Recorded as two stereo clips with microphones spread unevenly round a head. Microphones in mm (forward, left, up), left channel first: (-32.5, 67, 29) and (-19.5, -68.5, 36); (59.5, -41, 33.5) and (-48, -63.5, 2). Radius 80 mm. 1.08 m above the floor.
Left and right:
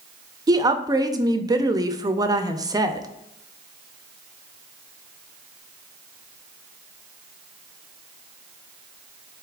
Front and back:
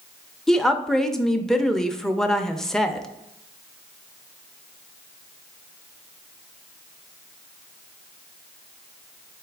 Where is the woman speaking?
110° right, 0.6 m.